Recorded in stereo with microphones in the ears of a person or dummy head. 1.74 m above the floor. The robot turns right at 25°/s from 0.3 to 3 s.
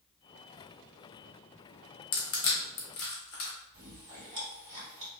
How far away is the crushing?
About 1.0 m.